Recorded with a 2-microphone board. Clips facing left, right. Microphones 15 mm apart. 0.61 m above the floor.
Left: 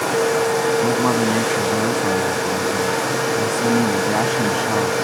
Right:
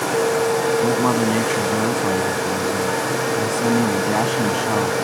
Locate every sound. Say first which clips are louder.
0.8 s a man speaking: even; 5° right (ahead or behind)